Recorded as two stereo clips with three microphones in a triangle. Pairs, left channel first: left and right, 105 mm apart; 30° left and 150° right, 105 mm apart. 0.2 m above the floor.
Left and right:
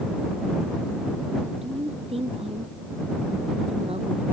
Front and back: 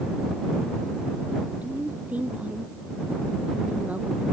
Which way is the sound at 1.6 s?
75° right.